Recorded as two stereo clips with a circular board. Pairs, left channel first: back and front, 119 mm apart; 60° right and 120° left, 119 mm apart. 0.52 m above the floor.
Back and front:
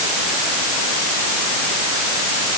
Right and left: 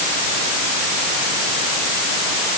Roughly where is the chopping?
No chopping in this recording.